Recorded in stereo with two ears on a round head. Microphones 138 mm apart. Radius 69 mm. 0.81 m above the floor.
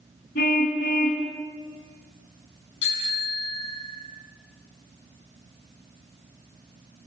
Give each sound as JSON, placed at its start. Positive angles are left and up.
{"t": 0.3, "sound": "a car horn", "side_deg": 60, "distance_m": 3.0}
{"t": 2.8, "sound": "a bicycle bell", "side_deg": 85, "distance_m": 5.5}